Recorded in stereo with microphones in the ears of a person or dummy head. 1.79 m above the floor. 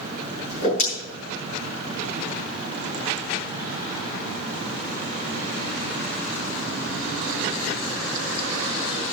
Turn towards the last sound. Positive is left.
turn(degrees=45)  # may be behind; listen again after turning